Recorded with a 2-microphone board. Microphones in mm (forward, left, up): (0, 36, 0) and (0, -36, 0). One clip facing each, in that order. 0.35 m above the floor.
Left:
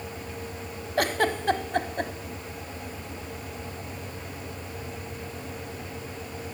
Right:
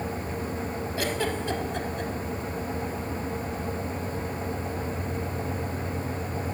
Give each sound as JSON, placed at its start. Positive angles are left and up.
{"t": 1.0, "sound": "a giggle", "side_deg": 55, "distance_m": 0.6}